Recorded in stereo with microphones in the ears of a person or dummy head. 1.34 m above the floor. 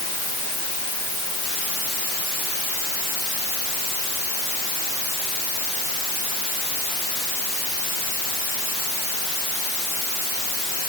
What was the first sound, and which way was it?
Only background noise.